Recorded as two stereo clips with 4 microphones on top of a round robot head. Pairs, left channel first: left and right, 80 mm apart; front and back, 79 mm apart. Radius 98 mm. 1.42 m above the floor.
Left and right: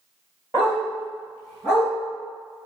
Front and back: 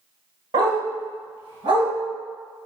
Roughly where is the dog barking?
Behind.